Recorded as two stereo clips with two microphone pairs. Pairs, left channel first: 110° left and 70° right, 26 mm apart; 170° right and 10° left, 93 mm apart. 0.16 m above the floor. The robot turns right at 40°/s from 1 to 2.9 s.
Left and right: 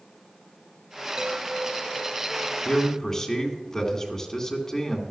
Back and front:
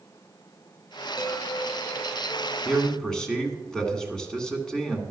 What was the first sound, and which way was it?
A chime, 140° right.